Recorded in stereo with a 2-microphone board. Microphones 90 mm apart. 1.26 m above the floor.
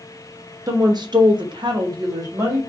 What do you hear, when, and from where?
0.7 s a woman speaking: 40° right (ahead or behind), 0.7 m; by 2.6 s 35° right (ahead or behind), 1.1 m